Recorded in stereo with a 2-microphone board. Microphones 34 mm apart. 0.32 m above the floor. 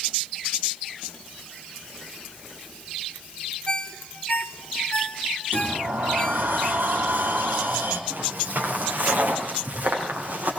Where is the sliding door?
85° right, 5.5 m.